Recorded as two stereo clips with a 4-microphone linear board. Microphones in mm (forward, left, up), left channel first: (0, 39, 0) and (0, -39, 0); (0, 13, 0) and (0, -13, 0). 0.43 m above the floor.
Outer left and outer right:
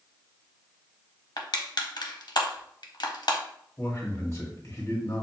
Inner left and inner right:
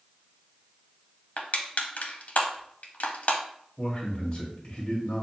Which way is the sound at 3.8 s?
35° left (ahead or behind).